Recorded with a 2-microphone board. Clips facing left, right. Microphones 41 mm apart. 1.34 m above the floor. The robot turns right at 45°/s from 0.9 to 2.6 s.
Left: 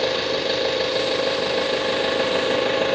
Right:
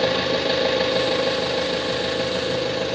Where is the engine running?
Straight ahead, 1.3 m; by 3.0 s 75° left, 1.3 m.